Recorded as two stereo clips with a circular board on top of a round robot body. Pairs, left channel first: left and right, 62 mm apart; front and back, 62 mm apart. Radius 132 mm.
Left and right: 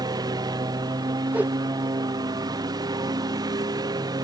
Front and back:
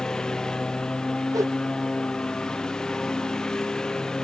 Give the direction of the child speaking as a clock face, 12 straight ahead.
I don't hear a child speaking.